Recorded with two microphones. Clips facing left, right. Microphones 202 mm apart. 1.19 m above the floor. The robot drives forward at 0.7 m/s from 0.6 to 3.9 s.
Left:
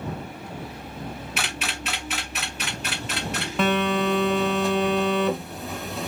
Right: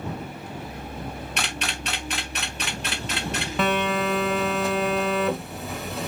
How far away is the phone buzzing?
About 0.6 m.